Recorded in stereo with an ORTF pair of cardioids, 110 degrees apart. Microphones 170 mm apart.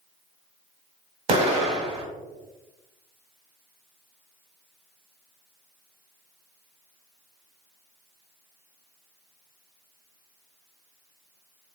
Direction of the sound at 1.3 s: 40° right.